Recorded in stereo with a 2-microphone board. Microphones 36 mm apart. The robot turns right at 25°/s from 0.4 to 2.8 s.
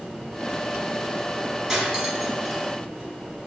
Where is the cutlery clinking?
15° right (ahead or behind), 0.8 m; by 2.6 s centre (ahead or behind), 0.8 m.